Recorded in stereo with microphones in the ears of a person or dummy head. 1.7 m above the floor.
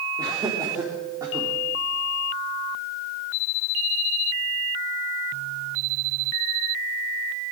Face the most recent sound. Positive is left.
turn(degrees=-15)  # may be behind; listen again after turning